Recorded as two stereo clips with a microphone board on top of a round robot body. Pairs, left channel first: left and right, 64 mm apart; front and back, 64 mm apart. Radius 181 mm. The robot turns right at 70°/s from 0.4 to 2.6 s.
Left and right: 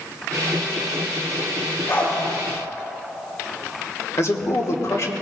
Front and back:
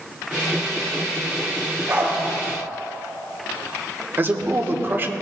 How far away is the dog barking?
About 3 m.